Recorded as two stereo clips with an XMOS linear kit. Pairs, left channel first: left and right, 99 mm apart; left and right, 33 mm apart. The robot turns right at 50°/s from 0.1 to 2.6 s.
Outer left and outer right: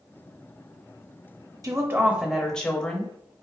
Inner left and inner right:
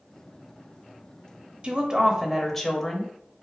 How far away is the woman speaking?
About 0.7 m.